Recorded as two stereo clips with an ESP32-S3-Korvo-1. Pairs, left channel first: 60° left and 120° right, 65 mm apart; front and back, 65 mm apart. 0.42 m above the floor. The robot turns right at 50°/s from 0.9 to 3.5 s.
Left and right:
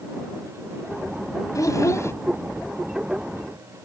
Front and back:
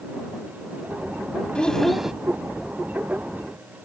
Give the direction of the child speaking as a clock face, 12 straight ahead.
10 o'clock.